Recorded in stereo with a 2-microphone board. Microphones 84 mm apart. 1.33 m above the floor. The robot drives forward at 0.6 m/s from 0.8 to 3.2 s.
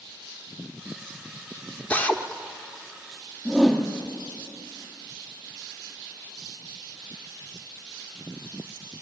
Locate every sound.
1.9 s a drill: 20° left (ahead or behind), 1.1 m; by 2.2 s 15° left (ahead or behind), 1.2 m
3.5 s a whoosh: 5° left (ahead or behind), 2.5 m